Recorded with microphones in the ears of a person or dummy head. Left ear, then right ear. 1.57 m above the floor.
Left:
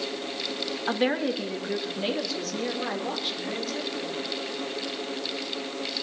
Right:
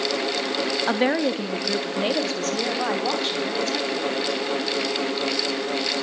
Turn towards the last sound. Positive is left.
turn(degrees=-40)  # may be behind; listen again after turning